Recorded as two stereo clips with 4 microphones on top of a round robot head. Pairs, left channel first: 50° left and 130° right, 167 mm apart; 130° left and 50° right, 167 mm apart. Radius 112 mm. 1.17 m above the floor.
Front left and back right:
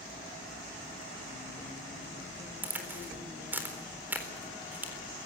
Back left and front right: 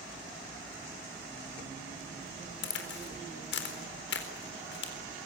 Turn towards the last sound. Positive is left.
turn(degrees=150)